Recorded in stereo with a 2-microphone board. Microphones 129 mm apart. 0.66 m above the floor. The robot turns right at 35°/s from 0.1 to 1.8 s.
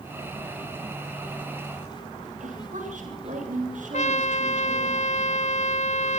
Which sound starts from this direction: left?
A trumpet, at 3.9 s.